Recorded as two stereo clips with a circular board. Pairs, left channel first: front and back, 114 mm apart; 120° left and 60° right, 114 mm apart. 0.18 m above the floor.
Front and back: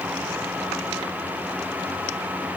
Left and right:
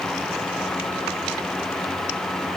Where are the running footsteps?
No running footsteps in this recording.